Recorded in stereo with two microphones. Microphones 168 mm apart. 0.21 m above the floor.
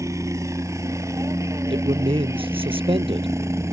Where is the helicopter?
20° right (ahead or behind); by 3.7 s 15° right (ahead or behind).